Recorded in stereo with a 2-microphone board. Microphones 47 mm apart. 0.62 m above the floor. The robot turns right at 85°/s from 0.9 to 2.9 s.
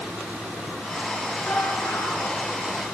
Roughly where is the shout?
Ahead left.